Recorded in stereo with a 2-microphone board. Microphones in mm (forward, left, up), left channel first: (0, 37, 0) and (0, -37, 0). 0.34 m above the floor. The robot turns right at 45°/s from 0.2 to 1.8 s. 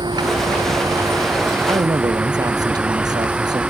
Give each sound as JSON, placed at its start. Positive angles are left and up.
{"t": 0.0, "sound": "a vehicle", "azimuth_deg": -85}
{"t": 1.7, "sound": "a man speaking", "side_deg": -70}